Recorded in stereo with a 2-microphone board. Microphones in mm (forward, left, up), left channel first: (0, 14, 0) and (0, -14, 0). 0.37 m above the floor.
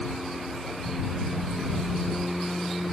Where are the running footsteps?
I don't hear running footsteps.